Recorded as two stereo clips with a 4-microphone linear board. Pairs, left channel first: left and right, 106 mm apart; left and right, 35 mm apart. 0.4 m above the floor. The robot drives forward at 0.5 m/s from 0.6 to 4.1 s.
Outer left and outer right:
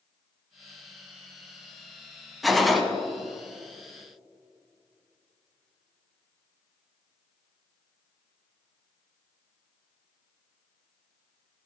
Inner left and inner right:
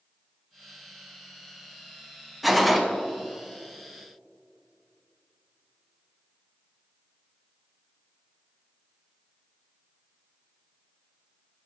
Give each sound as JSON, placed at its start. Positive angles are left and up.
{"t": 2.4, "sound": "a gunshot", "side_deg": 0, "distance_m": 0.5}